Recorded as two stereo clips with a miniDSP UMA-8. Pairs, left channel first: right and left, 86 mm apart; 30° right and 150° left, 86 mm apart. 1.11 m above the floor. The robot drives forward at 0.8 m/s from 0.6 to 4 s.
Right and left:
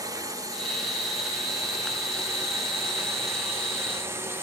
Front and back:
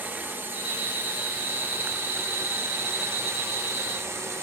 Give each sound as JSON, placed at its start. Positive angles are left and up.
{"t": 0.0, "sound": "a drone", "azimuth_deg": 95}